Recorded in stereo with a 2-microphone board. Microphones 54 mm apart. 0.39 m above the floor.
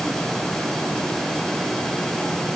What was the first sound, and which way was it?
Only background noise.